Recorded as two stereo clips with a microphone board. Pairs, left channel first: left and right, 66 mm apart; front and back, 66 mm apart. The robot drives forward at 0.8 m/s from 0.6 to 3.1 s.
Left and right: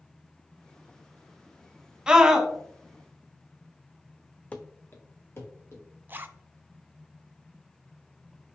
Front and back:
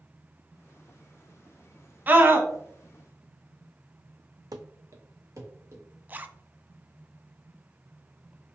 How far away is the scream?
About 1.1 m.